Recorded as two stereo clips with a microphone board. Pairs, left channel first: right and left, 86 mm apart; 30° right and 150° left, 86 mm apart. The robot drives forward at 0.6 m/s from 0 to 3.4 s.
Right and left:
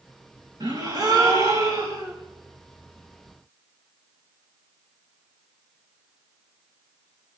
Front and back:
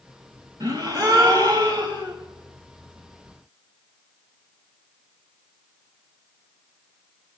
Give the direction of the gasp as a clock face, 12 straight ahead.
8 o'clock.